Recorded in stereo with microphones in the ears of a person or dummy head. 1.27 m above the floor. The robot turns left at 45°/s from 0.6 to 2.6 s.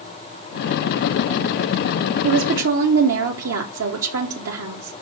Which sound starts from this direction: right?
A woman speaking, at 2.2 s.